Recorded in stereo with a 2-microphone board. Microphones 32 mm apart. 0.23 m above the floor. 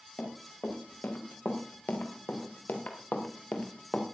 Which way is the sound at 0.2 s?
90° left.